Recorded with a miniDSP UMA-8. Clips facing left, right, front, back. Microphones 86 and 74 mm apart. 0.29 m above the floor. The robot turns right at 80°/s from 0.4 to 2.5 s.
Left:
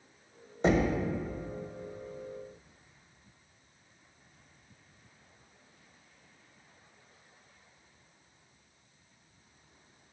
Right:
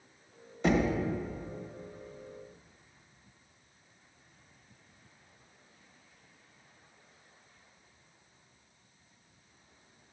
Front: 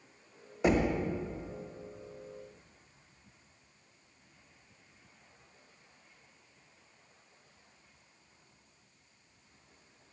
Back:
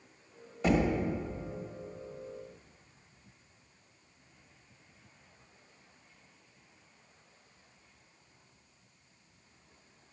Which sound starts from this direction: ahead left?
Knocking, at 0.6 s.